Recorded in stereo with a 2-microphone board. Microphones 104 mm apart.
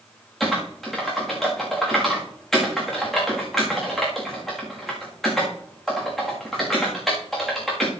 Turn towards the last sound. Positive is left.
turn(degrees=5)  # may be behind; listen again after turning